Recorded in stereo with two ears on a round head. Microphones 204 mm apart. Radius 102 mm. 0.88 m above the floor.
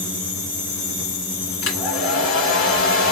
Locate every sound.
1.6 s a hair dryer: 60° left (ahead or behind), 2.5 m